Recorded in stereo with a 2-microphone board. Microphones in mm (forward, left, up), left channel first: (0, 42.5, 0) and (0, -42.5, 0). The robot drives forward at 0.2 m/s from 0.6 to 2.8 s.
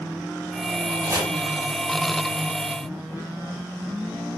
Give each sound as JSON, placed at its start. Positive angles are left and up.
{"t": 1.0, "sound": "chopping", "side_deg": -30, "distance_m": 4.5}